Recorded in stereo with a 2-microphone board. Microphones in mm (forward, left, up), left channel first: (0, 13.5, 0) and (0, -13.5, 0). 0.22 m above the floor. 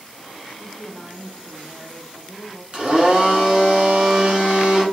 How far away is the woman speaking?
About 1.4 m.